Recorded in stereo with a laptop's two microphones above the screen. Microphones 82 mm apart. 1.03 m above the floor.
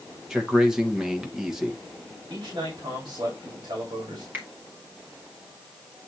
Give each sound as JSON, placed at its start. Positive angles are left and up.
{"t": 0.3, "sound": "a man speaking", "side_deg": -5, "distance_m": 1.1}
{"t": 2.3, "sound": "a man speaking", "side_deg": -60, "distance_m": 2.5}
{"t": 4.3, "sound": "a finger snap", "side_deg": -20, "distance_m": 1.8}